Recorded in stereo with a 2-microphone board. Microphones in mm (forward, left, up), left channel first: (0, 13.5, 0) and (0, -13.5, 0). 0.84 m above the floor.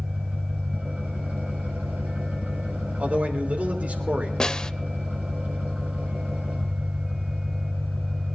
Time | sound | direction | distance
0.0 | an engine running | 75° right (ahead or behind) | 4 m
3.0 | a man speaking | 75° right (ahead or behind) | 3 m
4.4 | a snare drum | 30° left (ahead or behind) | 0.7 m